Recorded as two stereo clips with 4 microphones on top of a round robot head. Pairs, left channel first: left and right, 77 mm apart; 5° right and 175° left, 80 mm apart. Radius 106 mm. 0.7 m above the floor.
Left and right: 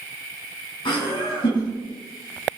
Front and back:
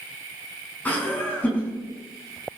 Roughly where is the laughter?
Ahead left.